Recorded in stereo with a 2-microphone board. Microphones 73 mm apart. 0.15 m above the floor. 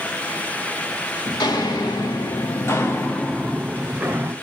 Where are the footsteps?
75° left (ahead or behind), 1.1 m; by 4.3 s 25° right (ahead or behind), 0.9 m.